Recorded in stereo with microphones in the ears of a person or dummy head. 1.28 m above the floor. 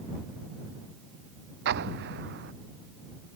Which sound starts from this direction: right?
An explosion, at 1.6 s.